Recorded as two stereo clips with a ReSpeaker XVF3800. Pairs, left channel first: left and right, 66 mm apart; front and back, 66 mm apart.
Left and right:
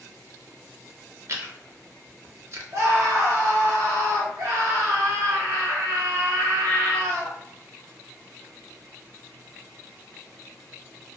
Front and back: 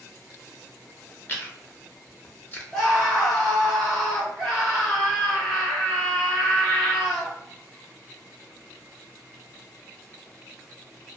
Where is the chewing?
55° right, 0.6 m.